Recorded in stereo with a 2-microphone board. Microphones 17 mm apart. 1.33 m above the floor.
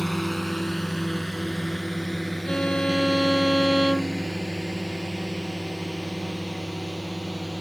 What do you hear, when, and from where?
0.0 s a drone: 10° left (ahead or behind); by 7.6 s 5° left (ahead or behind)
2.5 s a violin: 55° left (ahead or behind)